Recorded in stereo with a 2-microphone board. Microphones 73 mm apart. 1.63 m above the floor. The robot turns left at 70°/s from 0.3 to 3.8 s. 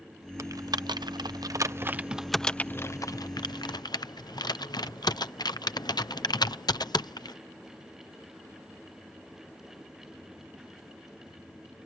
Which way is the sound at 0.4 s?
45° right (ahead or behind).